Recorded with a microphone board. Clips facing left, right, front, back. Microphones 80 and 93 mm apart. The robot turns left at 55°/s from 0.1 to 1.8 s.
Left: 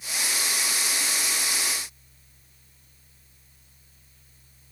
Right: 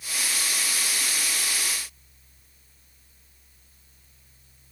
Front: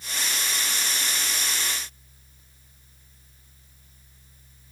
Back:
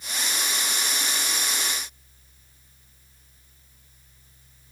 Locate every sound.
Only background noise.